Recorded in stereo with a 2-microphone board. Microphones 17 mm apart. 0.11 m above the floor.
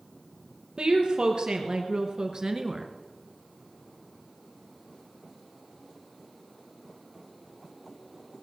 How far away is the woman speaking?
About 2.5 m.